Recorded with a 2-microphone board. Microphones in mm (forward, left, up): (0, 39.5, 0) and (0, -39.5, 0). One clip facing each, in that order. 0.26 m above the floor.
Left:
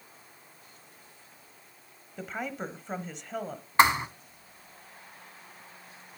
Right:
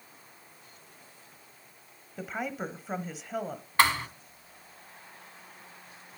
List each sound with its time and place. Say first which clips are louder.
2.2 s a woman speaking: right 1 dB; 5° right (ahead or behind), 1.0 m
3.8 s a thud: left 3 dB; 20° left (ahead or behind), 0.7 m